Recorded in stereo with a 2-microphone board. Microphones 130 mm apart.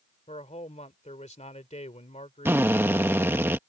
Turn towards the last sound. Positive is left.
turn(degrees=-15)  # may be behind; listen again after turning